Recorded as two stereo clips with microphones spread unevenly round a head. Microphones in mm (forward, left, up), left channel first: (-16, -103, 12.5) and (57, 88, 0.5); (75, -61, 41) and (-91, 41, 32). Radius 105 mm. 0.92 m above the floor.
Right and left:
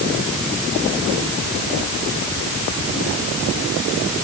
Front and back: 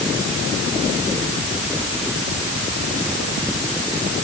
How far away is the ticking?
No ticking in this recording.